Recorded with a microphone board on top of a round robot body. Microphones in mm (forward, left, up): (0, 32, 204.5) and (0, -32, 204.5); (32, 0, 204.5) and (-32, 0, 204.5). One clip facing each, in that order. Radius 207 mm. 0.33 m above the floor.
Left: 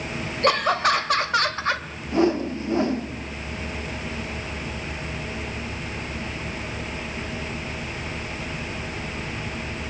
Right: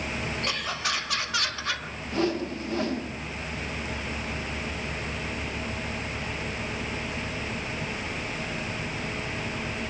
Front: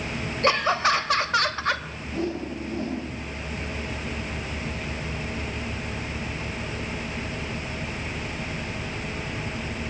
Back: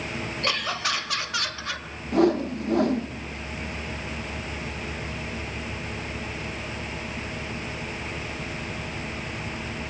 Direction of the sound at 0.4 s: 60° left.